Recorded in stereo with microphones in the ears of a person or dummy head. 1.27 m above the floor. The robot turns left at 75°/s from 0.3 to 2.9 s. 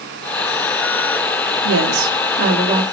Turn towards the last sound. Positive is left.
turn(degrees=-165)